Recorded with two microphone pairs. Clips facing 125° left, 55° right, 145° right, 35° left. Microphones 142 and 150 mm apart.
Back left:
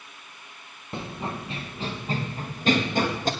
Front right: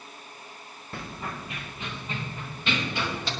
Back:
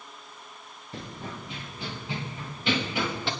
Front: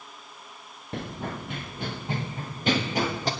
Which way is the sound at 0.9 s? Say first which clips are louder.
Back left 4 dB, front 5 dB; 55° left.